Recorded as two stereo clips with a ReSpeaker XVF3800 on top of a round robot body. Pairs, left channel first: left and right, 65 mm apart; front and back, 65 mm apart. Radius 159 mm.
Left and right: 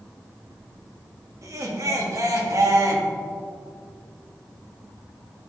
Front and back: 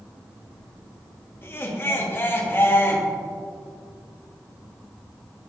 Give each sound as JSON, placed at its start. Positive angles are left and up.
{"t": 1.4, "sound": "laughter", "azimuth_deg": -55, "distance_m": 2.0}